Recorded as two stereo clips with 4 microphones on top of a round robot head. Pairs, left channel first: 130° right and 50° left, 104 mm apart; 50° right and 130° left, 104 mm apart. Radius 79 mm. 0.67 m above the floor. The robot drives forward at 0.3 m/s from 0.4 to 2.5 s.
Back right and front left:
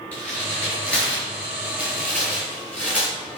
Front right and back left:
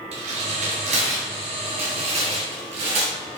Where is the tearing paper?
150° left, 3 m; by 3.4 s 155° left, 3.5 m.